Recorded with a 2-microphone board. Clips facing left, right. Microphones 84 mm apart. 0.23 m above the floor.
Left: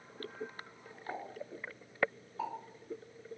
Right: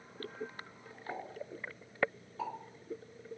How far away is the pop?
About 1.6 m.